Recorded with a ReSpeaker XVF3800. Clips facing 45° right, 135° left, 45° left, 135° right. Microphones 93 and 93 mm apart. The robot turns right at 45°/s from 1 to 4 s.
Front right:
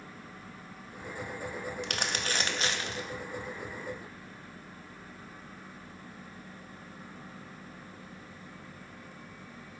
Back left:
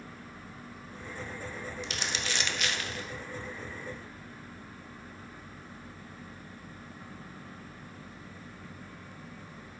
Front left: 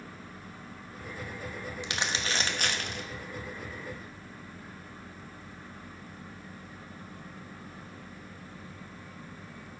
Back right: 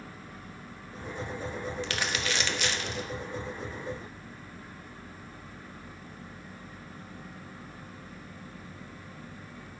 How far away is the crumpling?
About 1.0 m.